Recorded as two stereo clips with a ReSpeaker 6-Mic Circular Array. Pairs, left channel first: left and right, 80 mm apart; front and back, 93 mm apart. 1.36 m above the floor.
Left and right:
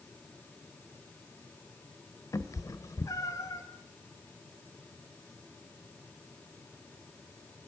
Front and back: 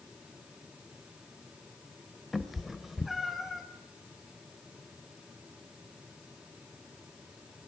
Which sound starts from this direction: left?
A cat meowing, at 2.3 s.